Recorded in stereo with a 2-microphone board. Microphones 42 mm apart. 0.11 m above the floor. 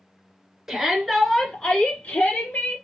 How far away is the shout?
About 1.8 m.